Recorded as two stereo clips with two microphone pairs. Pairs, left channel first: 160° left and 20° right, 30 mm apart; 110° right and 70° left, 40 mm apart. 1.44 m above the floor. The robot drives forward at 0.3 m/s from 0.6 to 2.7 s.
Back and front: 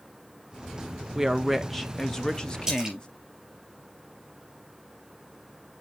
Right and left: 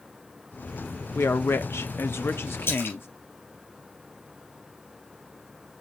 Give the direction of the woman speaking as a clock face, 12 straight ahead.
3 o'clock.